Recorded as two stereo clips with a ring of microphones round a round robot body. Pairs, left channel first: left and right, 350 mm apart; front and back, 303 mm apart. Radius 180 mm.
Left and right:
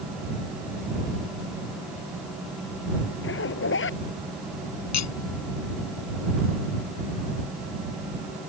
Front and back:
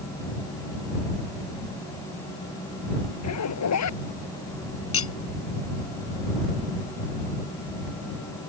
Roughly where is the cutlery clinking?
Ahead left.